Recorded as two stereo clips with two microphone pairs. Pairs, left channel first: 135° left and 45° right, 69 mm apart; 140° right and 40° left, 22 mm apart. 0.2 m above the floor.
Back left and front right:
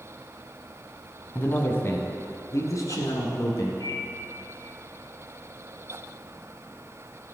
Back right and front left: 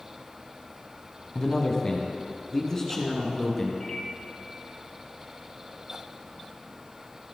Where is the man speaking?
175° right, 1.3 m; by 3.7 s 150° left, 2.5 m.